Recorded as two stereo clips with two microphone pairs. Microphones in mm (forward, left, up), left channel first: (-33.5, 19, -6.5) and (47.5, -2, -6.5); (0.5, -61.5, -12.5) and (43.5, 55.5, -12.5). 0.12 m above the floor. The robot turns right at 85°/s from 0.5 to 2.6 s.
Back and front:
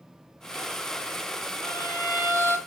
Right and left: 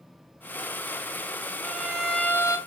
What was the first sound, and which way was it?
A violin, 125° left.